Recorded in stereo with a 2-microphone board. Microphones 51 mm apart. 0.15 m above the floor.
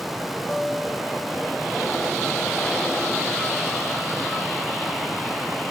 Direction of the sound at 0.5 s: 10° left (ahead or behind).